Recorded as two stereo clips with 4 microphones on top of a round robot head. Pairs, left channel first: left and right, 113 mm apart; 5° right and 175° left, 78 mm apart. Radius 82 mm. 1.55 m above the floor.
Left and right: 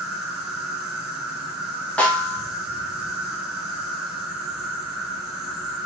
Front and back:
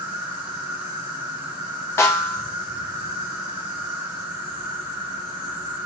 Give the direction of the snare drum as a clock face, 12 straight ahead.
11 o'clock.